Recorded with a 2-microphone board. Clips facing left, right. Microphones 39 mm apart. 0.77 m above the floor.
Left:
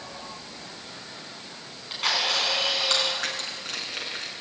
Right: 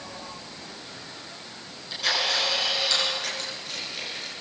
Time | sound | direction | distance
1.7 | a camera shutter | 45° left (ahead or behind) | 9 m
3.2 | crushing | 75° left (ahead or behind) | 6 m